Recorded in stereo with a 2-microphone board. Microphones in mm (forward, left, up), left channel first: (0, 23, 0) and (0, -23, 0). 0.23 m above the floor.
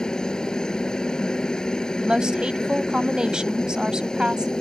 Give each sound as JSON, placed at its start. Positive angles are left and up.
{"t": 0.0, "sound": "a helicopter", "side_deg": 15}
{"t": 2.0, "sound": "a woman speaking", "side_deg": -20}